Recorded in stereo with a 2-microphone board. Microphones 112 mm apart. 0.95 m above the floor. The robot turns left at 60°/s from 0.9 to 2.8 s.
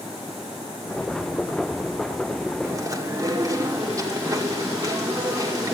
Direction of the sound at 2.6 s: 25° right (ahead or behind).